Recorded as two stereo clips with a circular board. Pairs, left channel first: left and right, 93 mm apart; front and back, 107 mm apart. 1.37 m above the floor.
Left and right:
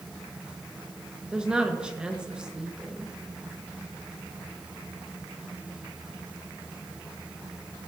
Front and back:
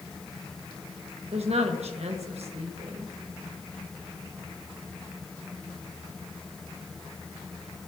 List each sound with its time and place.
1.3 s a woman speaking: 170° right, 1.3 m